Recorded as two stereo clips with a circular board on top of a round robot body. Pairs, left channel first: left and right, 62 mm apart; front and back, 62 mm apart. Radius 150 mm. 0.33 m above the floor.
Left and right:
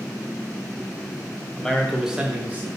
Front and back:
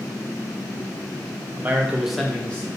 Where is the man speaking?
160° left, 1.0 m; by 2.7 s 50° right, 1.1 m.